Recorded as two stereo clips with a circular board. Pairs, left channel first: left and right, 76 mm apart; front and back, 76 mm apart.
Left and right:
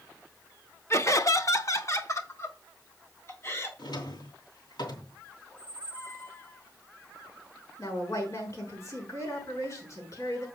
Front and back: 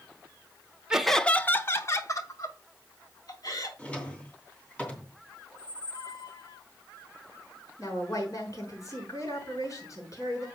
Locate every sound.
0.9 s laughter: 105° left, 0.8 m; by 3.7 s 35° left, 3.5 m
3.8 s a drawer: 75° left, 2.5 m
5.5 s a squeak: 25° left, 2.5 m
7.8 s a woman speaking: 45° left, 5.5 m